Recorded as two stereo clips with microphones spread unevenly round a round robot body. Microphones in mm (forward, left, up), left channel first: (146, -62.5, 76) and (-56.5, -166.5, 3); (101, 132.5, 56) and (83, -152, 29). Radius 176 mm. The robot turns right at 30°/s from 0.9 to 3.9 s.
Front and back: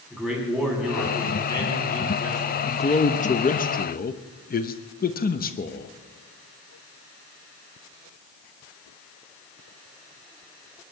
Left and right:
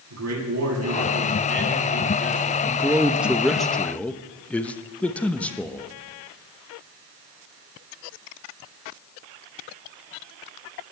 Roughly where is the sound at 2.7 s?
Ahead right.